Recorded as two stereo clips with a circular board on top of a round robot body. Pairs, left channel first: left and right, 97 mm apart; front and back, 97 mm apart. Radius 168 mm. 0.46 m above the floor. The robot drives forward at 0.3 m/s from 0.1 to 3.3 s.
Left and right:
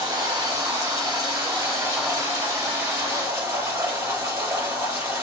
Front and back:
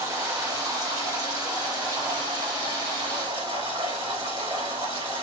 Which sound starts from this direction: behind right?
Running water, at 0.0 s.